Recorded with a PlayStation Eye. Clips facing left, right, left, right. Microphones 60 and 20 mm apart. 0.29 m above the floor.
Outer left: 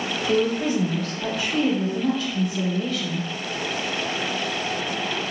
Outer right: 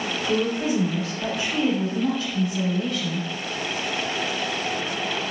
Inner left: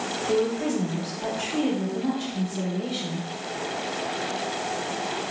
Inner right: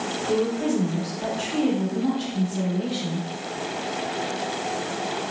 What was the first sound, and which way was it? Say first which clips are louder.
A woman speaking: outer left 2 dB, inner right 1 dB; 10° right (ahead or behind).